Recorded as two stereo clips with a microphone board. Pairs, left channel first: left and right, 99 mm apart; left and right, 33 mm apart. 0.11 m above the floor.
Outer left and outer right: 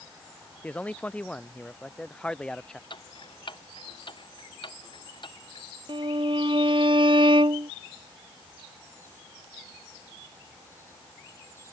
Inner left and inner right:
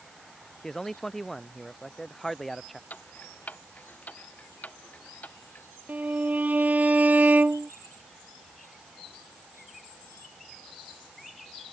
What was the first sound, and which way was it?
A man speaking, 15° left (ahead or behind).